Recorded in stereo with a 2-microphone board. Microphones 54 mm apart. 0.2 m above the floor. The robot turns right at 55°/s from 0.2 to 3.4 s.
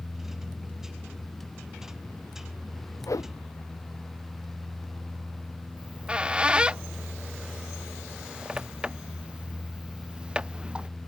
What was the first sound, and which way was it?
A whoosh, 70° left (ahead or behind).